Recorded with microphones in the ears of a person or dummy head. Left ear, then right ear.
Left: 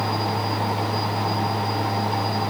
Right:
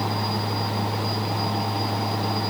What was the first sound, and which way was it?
Only background noise.